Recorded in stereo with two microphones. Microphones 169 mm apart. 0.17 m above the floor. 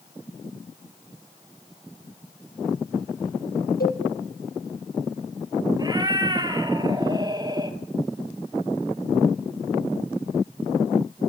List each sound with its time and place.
3.8 s a cowbell: 70° left (ahead or behind), 3.5 m
5.8 s a cat meowing: 25° right (ahead or behind), 1.3 m